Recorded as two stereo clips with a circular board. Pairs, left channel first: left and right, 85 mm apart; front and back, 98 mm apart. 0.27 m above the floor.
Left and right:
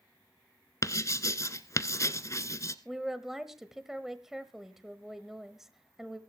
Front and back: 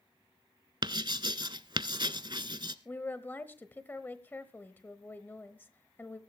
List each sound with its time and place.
0.8 s writing: 140° left, 0.8 m
2.9 s a woman speaking: 15° right, 1.0 m